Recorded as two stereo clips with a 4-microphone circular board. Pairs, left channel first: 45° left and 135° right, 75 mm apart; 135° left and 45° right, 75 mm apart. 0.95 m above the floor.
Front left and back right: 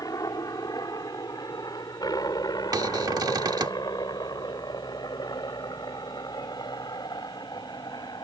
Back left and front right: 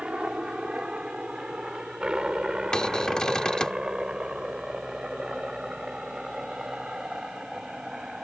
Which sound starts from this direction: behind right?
A cupboard door, at 2.7 s.